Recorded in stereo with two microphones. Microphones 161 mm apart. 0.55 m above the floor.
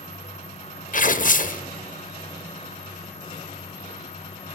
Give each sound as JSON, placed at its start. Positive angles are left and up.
{"t": 0.9, "sound": "tearing paper", "side_deg": 55, "distance_m": 0.6}